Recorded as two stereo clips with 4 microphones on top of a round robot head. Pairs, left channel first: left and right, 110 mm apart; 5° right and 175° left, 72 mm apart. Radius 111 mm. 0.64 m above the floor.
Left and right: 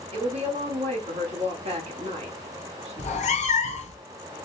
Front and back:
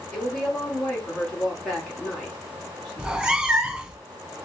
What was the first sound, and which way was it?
A woman speaking, 90° right.